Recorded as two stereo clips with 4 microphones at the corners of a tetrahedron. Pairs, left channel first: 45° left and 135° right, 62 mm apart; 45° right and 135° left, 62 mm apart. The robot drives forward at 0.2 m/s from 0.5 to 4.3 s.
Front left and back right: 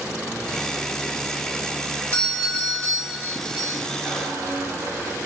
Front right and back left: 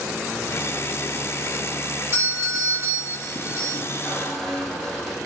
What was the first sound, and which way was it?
A doorbell, 95° left.